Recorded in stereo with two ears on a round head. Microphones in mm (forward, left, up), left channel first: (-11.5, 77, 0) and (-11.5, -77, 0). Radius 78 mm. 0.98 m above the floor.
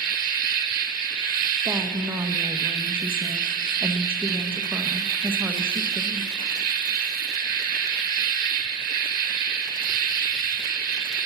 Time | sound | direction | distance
0.0 | an insect | 50° right (ahead or behind) | 1.0 m
1.6 | a woman speaking | 10° right (ahead or behind) | 0.7 m